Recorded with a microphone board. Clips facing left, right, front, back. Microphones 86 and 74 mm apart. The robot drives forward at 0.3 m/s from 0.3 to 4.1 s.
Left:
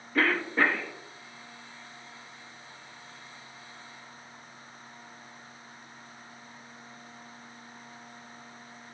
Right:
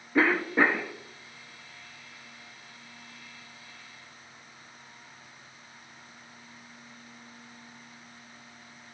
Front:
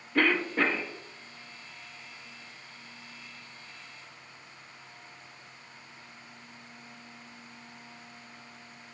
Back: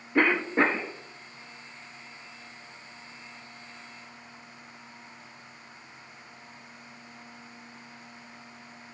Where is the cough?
145° right, 0.5 m; by 0.9 s 160° right, 0.6 m.